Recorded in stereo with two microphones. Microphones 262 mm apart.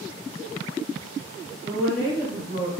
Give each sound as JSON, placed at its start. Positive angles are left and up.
{"t": 1.6, "sound": "a woman speaking", "side_deg": 0, "distance_m": 1.6}